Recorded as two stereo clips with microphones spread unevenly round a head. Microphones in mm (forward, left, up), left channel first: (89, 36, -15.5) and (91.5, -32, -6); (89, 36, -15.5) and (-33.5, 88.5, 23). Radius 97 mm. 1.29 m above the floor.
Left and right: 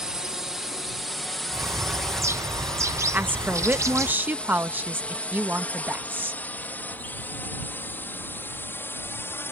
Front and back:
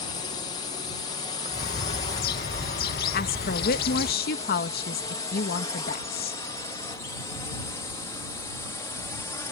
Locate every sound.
0.0 s a drone: 10° right; by 9.5 s 40° left
1.5 s a bird: 40° right
3.1 s a woman speaking: 25° right